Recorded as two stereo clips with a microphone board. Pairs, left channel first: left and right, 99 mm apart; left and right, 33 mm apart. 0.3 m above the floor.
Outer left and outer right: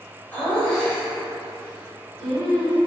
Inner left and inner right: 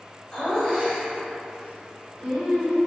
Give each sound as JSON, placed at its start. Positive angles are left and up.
{"t": 0.3, "sound": "laughter", "side_deg": 20, "distance_m": 1.0}